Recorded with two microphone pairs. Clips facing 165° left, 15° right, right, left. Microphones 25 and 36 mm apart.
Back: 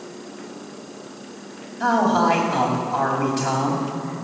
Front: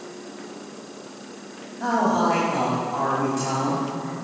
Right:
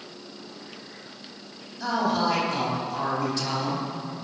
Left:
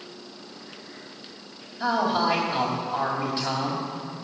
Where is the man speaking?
140° left, 2.5 m.